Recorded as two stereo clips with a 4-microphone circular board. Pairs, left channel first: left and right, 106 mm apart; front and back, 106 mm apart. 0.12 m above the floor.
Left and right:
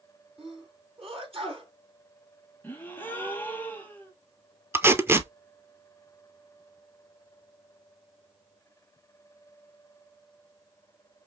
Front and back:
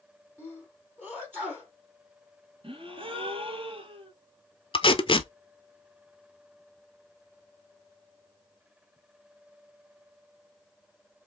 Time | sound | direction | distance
0.4 | a sneeze | 80° right | 3 m
2.6 | a gasp | 160° left | 1.1 m
4.7 | tape being pulled | 25° right | 0.6 m